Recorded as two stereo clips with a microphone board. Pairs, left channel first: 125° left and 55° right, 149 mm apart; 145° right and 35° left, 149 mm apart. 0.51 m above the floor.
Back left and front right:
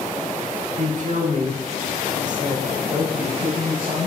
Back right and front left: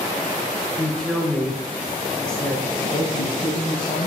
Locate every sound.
0.8 s a woman speaking: 60° right, 1.7 m
2.8 s a man speaking: 110° right, 3.5 m